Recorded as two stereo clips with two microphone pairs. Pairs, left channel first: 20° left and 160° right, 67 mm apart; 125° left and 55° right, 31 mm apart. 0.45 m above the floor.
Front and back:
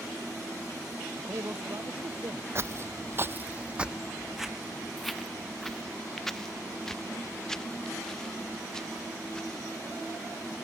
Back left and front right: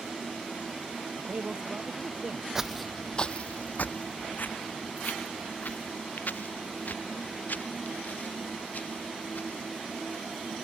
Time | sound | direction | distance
1.2 | a man speaking | 115° right | ?
2.5 | footsteps | 125° right | ?